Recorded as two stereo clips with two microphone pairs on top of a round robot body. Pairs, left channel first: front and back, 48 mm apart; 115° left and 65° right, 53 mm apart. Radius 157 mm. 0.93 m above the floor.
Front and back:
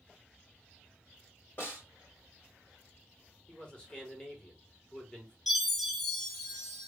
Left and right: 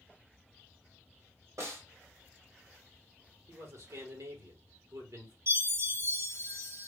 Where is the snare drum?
45° right, 2 m.